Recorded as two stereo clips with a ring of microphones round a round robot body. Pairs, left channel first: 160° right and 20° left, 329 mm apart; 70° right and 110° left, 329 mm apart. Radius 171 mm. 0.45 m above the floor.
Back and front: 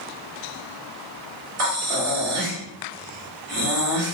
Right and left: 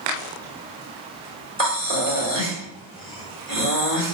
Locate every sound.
1.6 s breathing: straight ahead, 1.9 m